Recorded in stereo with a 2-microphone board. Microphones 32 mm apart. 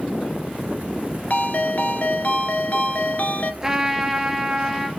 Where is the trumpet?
10° right (ahead or behind), 1.4 m.